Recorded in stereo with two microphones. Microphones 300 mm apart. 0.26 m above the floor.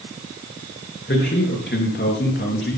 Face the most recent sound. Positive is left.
turn(degrees=40)  # may be behind; listen again after turning